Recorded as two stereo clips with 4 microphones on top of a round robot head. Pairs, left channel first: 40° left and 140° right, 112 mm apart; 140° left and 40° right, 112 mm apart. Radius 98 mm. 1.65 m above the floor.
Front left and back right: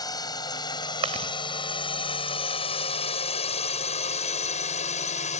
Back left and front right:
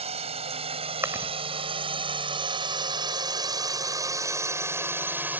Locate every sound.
0.0 s a drone: 15° right; by 5.4 s 35° left
1.0 s chewing: 105° right